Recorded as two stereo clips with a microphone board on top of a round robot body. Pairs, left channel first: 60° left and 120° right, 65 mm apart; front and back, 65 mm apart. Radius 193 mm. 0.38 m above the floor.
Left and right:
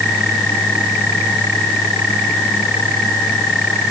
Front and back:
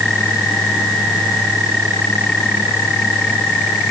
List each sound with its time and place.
Only background noise.